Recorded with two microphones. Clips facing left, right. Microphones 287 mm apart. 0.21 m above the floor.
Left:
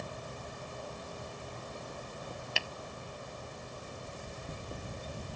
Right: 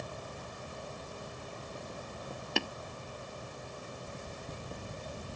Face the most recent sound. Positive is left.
turn(degrees=-60)  # may be behind; listen again after turning